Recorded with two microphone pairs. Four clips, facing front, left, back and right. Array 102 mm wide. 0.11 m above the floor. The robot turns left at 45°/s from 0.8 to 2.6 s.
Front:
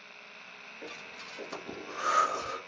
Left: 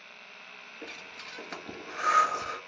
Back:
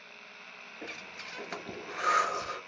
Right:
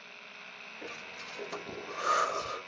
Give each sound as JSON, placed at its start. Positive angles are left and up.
{"t": 0.8, "sound": "breathing", "azimuth_deg": -175, "distance_m": 1.1}